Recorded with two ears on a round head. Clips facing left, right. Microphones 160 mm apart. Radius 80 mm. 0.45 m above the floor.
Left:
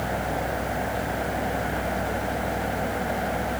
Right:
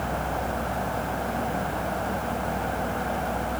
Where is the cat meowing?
I don't hear a cat meowing.